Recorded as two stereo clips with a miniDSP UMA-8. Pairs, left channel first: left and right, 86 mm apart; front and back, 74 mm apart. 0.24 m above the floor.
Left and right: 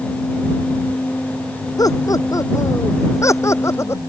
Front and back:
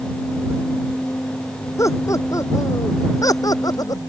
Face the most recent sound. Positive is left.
turn(degrees=30)